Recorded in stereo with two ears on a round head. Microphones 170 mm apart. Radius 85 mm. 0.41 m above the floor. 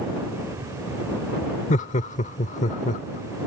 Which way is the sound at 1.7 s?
40° left (ahead or behind).